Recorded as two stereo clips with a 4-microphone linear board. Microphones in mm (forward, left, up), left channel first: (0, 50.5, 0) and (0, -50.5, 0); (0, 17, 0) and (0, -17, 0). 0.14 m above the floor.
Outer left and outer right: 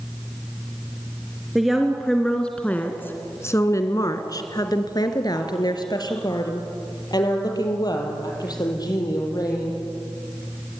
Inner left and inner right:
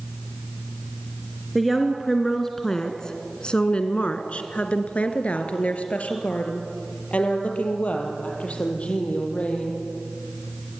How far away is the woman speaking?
About 2.5 m.